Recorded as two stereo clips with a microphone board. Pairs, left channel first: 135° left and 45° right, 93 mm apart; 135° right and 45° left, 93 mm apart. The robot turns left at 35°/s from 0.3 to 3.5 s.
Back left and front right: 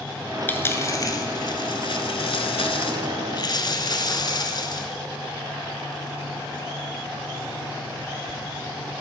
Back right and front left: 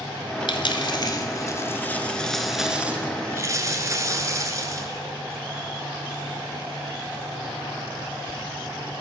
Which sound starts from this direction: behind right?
A dropped coin, at 0.5 s.